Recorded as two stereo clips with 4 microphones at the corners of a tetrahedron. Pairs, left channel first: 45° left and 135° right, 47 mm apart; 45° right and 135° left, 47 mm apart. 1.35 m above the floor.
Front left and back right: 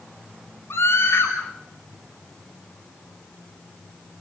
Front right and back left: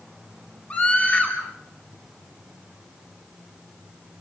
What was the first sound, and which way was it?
A scream, 10° left.